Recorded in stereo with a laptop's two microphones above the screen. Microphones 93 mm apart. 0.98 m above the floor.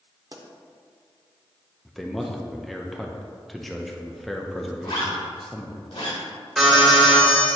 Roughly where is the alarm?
Centre.